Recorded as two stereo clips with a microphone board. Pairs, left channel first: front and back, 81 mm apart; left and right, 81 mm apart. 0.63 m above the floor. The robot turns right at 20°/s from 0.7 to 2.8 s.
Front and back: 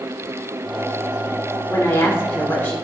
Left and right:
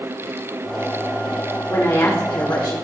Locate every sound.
1.7 s a woman speaking: 45° left, 1.7 m; by 2.8 s 65° left, 1.7 m